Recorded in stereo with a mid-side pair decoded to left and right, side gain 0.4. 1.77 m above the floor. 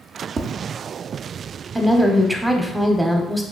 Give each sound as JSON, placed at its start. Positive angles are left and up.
{"t": 0.4, "sound": "tapping", "azimuth_deg": -45, "distance_m": 0.6}
{"t": 1.8, "sound": "a woman speaking", "azimuth_deg": -10, "distance_m": 0.8}